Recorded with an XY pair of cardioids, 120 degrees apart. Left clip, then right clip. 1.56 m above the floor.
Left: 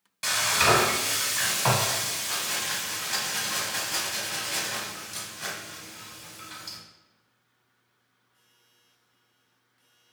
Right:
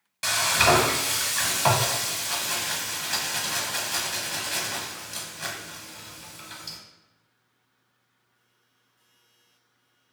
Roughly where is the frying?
Ahead.